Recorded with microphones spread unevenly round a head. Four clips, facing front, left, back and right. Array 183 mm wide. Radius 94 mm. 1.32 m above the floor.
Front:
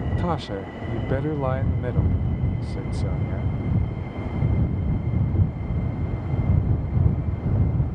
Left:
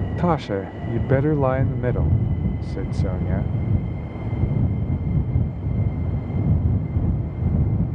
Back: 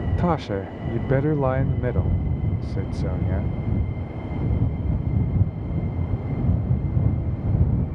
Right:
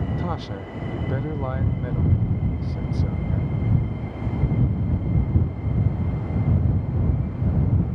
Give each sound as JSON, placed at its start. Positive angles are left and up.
{"t": 0.2, "sound": "a man speaking", "azimuth_deg": 105}